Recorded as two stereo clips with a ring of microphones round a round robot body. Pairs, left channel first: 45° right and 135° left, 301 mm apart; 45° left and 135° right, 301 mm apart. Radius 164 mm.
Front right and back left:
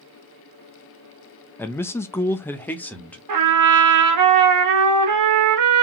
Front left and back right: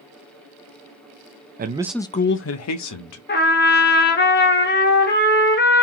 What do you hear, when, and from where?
1.6 s a man speaking: 125° right, 0.6 m; by 3.2 s 40° left, 1.2 m
3.3 s a trumpet: 105° left, 1.1 m